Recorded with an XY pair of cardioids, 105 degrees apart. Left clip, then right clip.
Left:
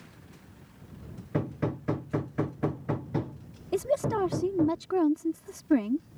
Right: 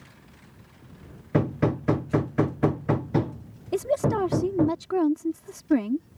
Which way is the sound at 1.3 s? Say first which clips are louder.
Right 7 dB; 45° right.